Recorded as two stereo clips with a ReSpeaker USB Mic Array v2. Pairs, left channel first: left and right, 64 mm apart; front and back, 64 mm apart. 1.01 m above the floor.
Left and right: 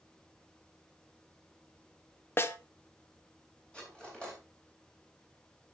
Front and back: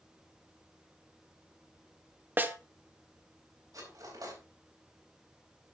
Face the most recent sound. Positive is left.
turn(degrees=165)